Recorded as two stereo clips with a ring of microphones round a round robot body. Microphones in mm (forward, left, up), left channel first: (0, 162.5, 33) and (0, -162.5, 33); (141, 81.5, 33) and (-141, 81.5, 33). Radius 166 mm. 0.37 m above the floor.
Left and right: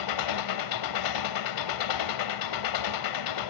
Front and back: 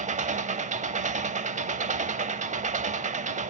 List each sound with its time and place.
0.0 s an engine running: 115° left, 0.8 m